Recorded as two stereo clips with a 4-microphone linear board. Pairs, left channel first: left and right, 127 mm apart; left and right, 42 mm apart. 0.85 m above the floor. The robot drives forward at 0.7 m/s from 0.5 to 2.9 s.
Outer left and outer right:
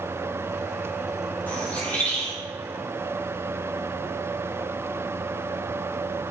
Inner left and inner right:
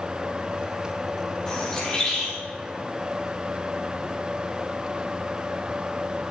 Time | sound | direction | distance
1.5 | a bird | 15° left (ahead or behind) | 4 m